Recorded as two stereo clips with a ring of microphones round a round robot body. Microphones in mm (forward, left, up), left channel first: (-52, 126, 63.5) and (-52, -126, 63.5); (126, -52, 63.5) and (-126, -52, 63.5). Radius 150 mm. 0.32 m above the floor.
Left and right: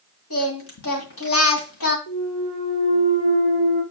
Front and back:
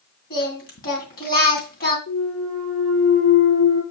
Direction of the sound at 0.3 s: 55° left.